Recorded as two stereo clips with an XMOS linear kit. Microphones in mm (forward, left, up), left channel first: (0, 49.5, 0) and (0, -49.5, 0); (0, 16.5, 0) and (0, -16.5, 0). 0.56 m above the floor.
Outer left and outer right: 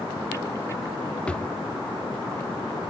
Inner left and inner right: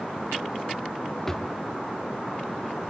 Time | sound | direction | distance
1.3 | a drawer | 10° left (ahead or behind) | 0.6 m